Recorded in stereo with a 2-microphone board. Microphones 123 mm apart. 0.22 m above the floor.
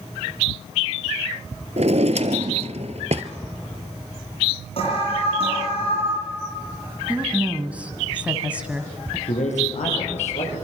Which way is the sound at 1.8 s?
65° right (ahead or behind).